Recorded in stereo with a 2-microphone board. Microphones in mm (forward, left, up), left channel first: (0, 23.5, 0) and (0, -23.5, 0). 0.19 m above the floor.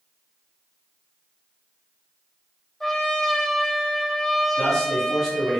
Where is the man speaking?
10° left (ahead or behind), 1.4 m.